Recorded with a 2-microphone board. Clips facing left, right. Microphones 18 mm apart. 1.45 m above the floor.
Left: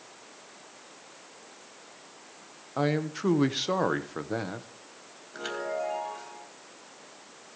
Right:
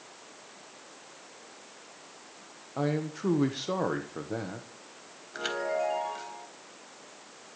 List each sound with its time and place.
2.8 s a man speaking: 35° left (ahead or behind), 1.2 m
5.3 s a chime: 20° right (ahead or behind), 3.5 m